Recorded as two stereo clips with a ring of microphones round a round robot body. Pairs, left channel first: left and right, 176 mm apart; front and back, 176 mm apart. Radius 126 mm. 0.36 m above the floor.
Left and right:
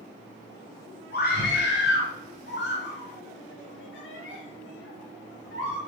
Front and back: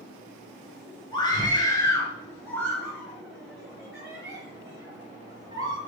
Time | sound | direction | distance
1.1 | a scream | 65° left | 4.5 m